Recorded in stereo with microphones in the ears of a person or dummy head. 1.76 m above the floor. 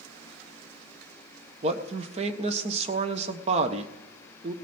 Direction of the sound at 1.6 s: 35° right (ahead or behind).